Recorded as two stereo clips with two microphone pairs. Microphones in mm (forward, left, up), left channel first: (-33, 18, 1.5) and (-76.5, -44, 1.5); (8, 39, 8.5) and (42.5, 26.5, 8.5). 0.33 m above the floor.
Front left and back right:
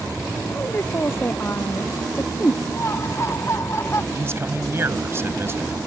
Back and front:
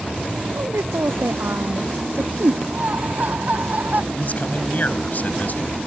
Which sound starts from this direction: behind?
A man speaking, at 4.1 s.